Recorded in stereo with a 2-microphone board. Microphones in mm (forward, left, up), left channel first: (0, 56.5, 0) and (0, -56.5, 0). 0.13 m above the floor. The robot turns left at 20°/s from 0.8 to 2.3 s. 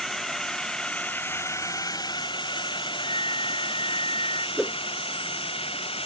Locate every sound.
0.0 s a drone: centre (ahead or behind); by 6.1 s 55° left (ahead or behind)
3.0 s a flute: 55° left (ahead or behind)
4.6 s a whoosh: centre (ahead or behind)